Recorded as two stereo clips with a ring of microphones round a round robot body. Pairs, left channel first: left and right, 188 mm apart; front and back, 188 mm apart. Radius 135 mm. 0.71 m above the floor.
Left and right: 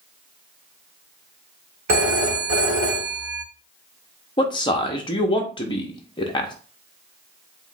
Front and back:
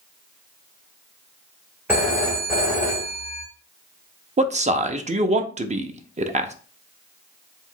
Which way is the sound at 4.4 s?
145° left.